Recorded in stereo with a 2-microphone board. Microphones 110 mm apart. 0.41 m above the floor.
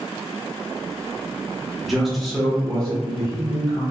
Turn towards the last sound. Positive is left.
turn(degrees=5)  # may be behind; listen again after turning